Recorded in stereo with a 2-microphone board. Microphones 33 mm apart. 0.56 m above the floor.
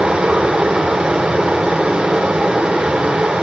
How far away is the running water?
About 1.3 m.